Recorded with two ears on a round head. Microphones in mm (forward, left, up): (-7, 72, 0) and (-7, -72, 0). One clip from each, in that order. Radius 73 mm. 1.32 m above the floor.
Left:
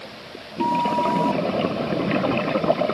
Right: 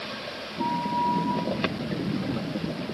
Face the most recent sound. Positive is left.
turn(degrees=50)  # may be behind; listen again after turning